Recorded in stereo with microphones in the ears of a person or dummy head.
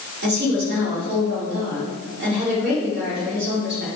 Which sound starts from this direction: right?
A woman speaking, at 0.2 s.